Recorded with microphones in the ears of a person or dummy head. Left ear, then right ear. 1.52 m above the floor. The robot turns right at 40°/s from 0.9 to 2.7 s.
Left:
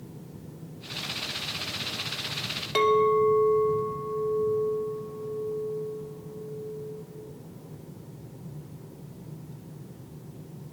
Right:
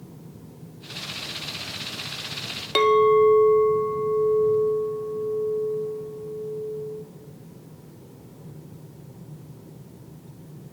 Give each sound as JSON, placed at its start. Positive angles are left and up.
{"t": 2.8, "sound": "a clink", "side_deg": -15, "distance_m": 0.5}